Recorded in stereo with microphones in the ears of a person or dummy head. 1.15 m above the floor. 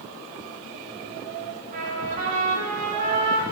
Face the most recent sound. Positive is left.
turn(degrees=-45)  # may be behind; listen again after turning